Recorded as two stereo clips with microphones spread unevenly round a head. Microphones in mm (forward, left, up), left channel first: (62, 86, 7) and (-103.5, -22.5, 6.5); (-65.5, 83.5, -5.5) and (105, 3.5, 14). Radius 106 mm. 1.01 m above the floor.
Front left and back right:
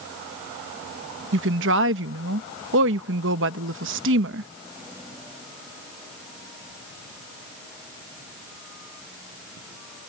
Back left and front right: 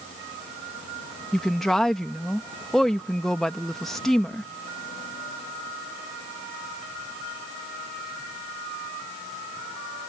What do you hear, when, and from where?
1.3 s a woman speaking: 120° right